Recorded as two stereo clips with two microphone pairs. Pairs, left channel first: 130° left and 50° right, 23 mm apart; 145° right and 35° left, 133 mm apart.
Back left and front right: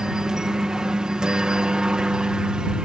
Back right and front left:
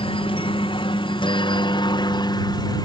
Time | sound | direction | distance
0.0 | a helicopter | 110° right | ?